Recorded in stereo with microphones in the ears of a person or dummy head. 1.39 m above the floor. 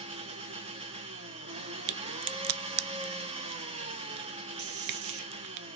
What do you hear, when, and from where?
0.0 s an engine running: 25° right (ahead or behind), 0.7 m
1.9 s a crack: 65° right (ahead or behind), 0.6 m
4.6 s a man speaking: 70° right (ahead or behind), 0.8 m